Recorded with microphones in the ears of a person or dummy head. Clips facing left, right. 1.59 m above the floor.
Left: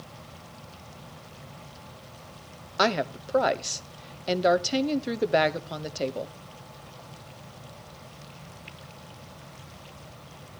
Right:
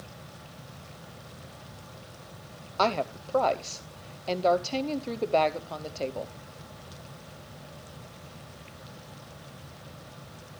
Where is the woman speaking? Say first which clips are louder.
Left 1 dB; 15° left (ahead or behind), 0.6 m.